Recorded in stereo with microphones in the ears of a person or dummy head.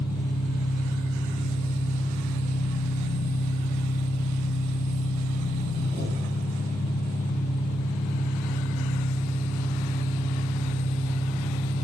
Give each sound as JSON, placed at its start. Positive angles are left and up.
{"t": 0.0, "sound": "an engine running", "side_deg": 30, "distance_m": 1.3}